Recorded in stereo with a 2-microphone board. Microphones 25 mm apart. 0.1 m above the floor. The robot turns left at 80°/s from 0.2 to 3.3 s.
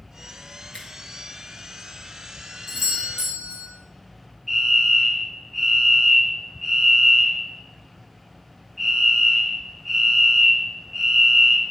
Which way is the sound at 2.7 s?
155° right.